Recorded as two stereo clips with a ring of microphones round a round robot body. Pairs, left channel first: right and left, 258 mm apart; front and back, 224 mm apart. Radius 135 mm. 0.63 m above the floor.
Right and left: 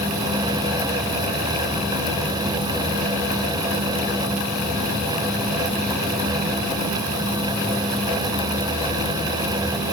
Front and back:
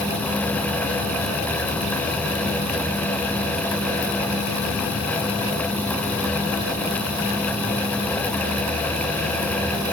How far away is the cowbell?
No cowbell in this recording.